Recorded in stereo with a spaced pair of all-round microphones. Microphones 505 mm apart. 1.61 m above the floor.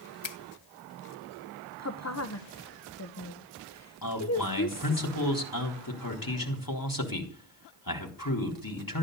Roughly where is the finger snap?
Left.